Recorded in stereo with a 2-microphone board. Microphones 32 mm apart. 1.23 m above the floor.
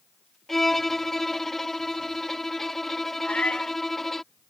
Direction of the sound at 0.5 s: 10° left (ahead or behind).